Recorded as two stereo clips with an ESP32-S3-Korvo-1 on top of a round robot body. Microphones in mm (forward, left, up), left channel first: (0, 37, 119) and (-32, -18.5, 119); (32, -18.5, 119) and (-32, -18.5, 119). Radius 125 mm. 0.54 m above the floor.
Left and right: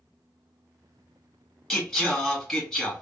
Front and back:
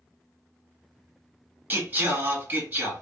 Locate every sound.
1.7 s singing: 140° left, 1.4 m